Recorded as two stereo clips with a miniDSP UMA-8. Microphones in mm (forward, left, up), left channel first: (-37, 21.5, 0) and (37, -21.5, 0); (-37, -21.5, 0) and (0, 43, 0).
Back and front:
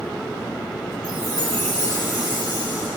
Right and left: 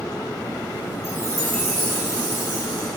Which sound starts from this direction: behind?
A chime, at 1.0 s.